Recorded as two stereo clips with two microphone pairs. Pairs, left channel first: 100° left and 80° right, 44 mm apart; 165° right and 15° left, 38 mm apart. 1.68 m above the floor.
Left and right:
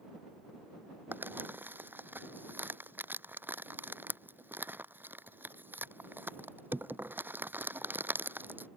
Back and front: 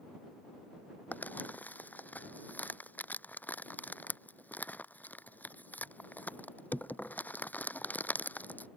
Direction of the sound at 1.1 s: 120° right.